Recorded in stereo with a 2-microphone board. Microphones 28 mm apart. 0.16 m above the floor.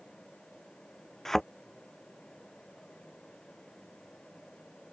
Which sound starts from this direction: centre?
A thud, at 1.2 s.